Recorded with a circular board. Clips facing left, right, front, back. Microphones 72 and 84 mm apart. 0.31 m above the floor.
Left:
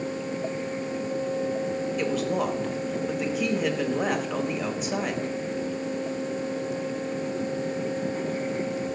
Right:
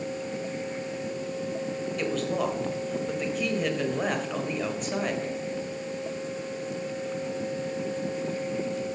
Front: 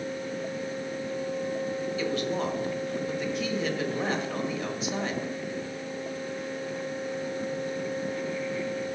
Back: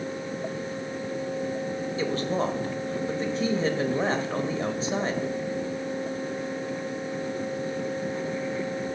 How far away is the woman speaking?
About 1.4 m.